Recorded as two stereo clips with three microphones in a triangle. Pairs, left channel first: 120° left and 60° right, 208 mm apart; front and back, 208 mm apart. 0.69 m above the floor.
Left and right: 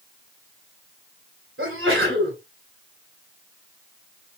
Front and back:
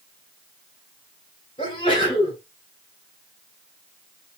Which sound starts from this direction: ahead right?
A sneeze, at 1.6 s.